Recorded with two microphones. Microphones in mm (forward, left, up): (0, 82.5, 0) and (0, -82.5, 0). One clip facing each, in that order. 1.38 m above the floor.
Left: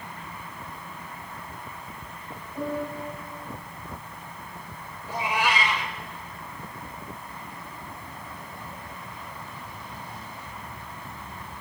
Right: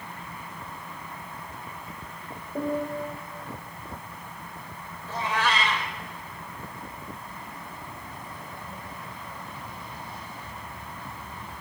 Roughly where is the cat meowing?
Centre.